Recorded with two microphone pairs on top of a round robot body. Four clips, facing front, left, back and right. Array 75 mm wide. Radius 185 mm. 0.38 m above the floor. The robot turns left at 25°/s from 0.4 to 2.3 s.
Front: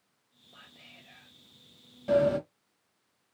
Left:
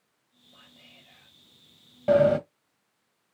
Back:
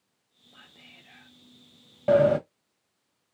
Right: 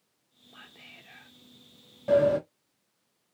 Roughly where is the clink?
No clink in this recording.